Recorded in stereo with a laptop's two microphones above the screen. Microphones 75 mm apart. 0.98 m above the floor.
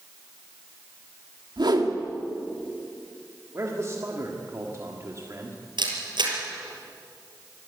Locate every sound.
1.6 s a whoosh: 75° right (ahead or behind), 2 m
3.5 s a man speaking: 40° right (ahead or behind), 1.7 m
5.8 s a camera shutter: 80° right, 5 m